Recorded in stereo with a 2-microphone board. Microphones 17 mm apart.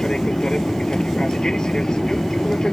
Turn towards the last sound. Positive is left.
turn(degrees=45)  # may be behind; listen again after turning